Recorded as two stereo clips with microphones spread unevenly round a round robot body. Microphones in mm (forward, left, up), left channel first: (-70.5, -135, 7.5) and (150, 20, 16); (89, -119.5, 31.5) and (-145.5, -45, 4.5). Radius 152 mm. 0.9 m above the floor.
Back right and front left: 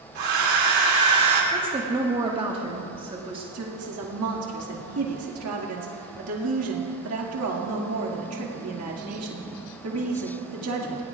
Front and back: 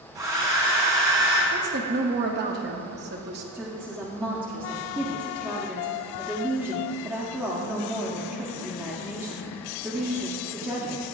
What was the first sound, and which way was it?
A hair dryer, 85° left.